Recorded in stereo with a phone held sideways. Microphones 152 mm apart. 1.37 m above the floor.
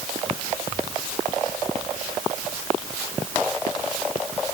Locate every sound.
Only background noise.